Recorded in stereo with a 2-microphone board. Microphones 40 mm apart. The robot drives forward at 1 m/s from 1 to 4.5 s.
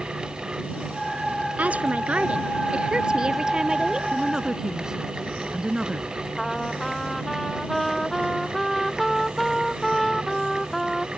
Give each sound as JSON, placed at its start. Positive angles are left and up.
{"t": 1.6, "sound": "a woman speaking", "side_deg": -40}
{"t": 4.1, "sound": "a woman speaking", "side_deg": -20}
{"t": 6.4, "sound": "a trumpet", "side_deg": 5}